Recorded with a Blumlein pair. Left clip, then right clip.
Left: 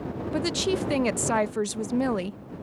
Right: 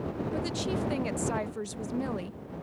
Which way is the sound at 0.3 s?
65° left.